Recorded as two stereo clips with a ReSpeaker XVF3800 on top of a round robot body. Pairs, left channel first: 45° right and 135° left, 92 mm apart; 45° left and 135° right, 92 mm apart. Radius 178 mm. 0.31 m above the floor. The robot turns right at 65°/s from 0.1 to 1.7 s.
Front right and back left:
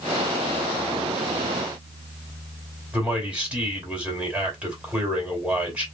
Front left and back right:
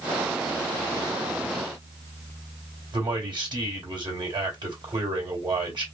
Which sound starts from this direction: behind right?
A man speaking, at 2.9 s.